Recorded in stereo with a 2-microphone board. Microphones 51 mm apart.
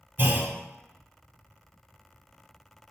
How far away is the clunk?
About 1.0 m.